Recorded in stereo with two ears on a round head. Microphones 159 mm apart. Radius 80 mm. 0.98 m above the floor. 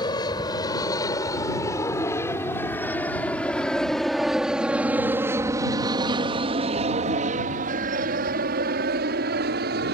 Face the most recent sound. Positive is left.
turn(degrees=-60)  # may be behind; listen again after turning